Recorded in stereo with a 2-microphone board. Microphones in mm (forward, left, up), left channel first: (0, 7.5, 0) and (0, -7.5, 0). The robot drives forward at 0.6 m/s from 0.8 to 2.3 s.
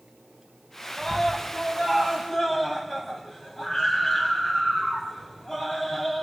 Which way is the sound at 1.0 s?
20° left (ahead or behind).